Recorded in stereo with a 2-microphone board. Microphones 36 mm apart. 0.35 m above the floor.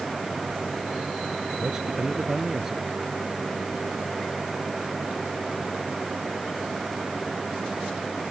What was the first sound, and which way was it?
A man speaking, 15° right (ahead or behind).